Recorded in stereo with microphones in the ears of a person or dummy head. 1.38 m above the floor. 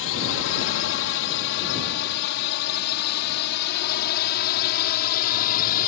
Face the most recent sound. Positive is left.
turn(degrees=60)  # may be behind; listen again after turning